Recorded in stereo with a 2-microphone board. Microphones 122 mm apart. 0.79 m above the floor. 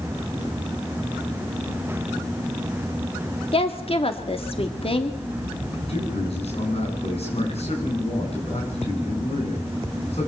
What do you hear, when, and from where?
3.5 s a woman speaking: 50° left (ahead or behind), 2 m
5.9 s a man speaking: 55° left (ahead or behind), 9.5 m